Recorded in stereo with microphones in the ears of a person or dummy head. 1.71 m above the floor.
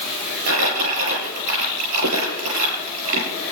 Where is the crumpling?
85° right, 7 m.